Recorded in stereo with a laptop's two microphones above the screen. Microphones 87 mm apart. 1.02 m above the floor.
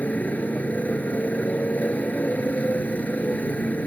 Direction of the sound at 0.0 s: 20° left (ahead or behind).